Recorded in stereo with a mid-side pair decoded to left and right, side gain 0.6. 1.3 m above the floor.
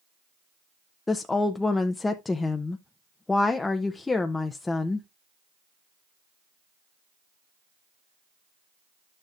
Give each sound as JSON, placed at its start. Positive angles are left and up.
{"t": 1.1, "sound": "a woman speaking", "azimuth_deg": 20, "distance_m": 0.7}